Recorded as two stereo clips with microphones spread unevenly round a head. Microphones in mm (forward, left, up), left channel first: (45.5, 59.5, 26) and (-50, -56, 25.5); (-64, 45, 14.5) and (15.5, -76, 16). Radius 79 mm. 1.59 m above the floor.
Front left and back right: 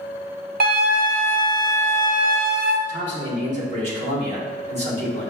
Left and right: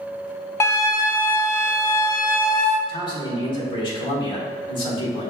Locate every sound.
0.6 s a flute: 165° right, 0.5 m
2.9 s a man speaking: 175° right, 1.4 m